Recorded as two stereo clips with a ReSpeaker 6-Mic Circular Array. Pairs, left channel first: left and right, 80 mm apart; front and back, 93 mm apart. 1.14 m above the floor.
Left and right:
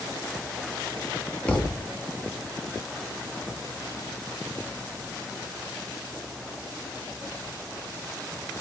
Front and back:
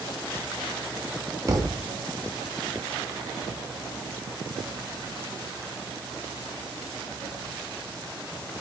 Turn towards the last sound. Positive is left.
turn(degrees=155)